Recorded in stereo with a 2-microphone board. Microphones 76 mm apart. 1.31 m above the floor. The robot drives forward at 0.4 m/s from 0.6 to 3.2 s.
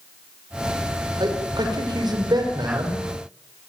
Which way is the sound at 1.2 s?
70° right (ahead or behind).